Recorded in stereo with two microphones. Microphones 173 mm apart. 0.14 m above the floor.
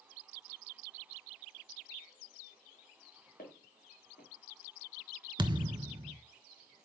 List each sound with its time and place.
3.4 s footsteps: 70° left (ahead or behind), 2.5 m
5.4 s a thud: 30° right (ahead or behind), 0.6 m